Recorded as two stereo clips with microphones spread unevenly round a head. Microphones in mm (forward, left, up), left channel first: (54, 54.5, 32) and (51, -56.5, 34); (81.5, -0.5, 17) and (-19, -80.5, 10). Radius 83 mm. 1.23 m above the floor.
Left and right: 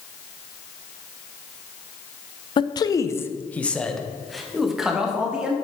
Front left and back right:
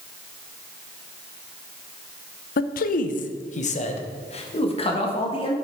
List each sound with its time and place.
2.6 s a man speaking: 45° left, 0.6 m; by 5.5 s 10° right, 1.8 m